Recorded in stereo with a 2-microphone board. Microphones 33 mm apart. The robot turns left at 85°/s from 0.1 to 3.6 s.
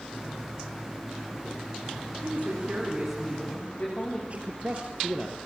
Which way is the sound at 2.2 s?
100° right.